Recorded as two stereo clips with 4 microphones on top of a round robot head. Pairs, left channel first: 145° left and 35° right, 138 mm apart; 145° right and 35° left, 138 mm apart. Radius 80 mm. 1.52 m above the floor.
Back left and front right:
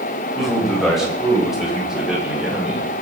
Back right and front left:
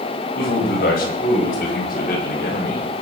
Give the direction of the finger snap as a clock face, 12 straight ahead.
I don't hear a finger snap.